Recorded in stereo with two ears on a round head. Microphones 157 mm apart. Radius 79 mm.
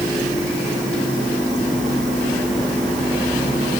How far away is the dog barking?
I don't hear a dog barking.